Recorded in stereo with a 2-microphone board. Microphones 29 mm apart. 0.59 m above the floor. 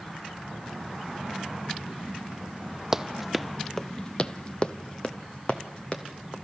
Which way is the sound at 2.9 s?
15° right (ahead or behind).